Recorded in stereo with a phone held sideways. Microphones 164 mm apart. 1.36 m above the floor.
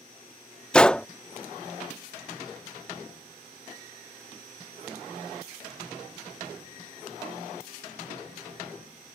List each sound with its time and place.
0.7 s a gunshot: 5° left (ahead or behind)